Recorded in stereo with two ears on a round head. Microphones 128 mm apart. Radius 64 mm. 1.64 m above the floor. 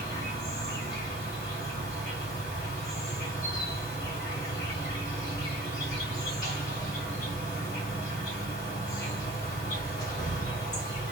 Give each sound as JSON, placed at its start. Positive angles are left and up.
{"t": 0.0, "sound": "an insect", "side_deg": 25, "distance_m": 1.9}